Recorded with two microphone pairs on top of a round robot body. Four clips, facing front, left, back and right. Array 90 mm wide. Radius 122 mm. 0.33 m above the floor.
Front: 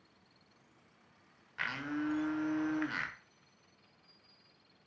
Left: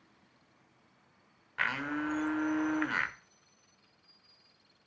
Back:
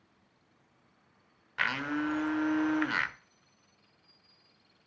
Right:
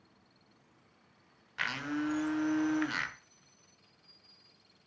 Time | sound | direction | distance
1.6 | a blender | 150° left | 1.3 m